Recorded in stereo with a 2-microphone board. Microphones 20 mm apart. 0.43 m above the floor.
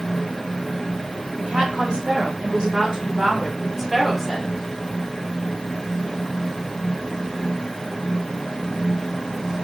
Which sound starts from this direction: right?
A woman speaking, at 1.4 s.